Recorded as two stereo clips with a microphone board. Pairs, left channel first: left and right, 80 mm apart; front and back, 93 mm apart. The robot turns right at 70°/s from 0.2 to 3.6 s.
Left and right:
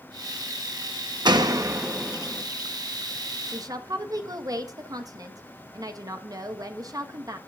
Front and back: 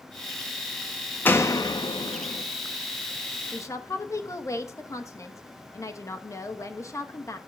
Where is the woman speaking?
60° right, 1.3 m; by 7.4 s 55° right, 1.3 m.